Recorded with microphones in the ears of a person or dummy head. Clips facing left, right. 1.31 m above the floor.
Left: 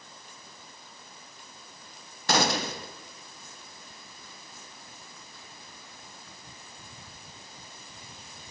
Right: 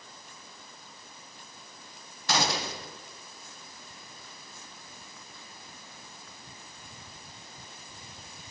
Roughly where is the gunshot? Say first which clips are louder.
Left 4 dB; left.